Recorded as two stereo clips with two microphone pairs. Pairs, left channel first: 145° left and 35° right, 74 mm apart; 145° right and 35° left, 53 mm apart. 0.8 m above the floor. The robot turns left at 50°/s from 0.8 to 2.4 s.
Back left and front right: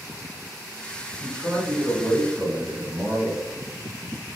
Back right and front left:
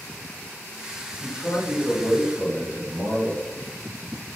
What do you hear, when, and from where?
1.2 s a man speaking: 85° right, 1.0 m; by 3.5 s 145° right, 1.0 m